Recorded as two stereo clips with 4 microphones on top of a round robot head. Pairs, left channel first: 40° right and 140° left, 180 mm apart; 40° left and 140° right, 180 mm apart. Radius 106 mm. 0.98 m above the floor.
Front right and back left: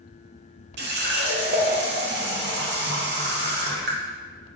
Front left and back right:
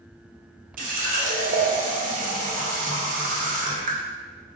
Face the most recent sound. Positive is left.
turn(degrees=175)